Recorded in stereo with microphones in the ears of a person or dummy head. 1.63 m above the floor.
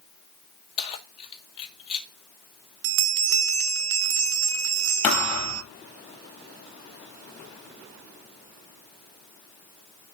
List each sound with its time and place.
0.8 s keys jangling: 30° left (ahead or behind), 1.6 m
2.8 s a bell: 75° right (ahead or behind), 0.6 m
5.0 s a thud: 5° left (ahead or behind), 4.5 m